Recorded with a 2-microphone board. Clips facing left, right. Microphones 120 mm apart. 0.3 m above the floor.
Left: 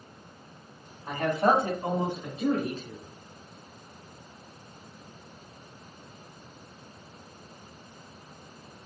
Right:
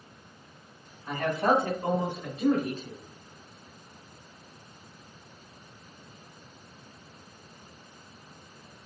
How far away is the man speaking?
About 1.8 m.